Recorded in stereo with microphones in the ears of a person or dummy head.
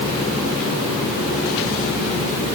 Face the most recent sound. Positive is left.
No sound to turn to.